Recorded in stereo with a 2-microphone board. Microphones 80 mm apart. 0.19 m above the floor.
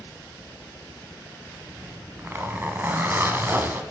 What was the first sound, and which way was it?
A zipper, 25° right (ahead or behind).